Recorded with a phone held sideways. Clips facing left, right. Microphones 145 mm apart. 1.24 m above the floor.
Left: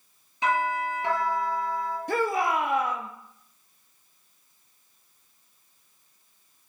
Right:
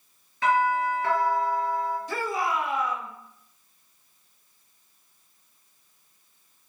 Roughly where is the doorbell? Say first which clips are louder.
Right 3 dB; left.